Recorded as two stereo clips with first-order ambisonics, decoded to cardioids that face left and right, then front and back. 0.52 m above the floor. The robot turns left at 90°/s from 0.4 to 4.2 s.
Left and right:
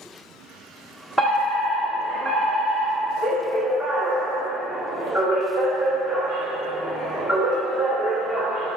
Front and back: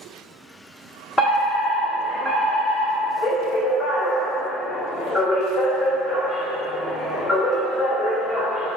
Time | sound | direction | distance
1.2 | a fire alarm | 30° left | 1.6 m